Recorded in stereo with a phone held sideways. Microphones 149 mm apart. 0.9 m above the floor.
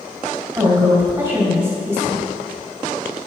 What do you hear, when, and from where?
0.6 s a woman speaking: 20° right (ahead or behind), 4 m